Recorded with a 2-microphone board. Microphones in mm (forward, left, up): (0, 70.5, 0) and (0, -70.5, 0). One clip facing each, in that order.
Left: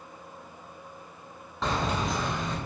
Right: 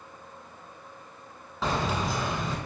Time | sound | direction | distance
1.6 | keys jangling | centre (ahead or behind) | 0.8 m